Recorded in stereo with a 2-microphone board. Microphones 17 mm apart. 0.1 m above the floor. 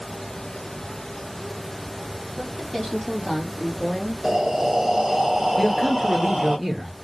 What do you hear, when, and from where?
2.3 s a woman speaking: 10° left (ahead or behind), 3.5 m; by 4.1 s 5° left (ahead or behind), 1.8 m
4.2 s breathing: 30° right (ahead or behind), 1.3 m
5.6 s a man speaking: 10° right (ahead or behind), 2 m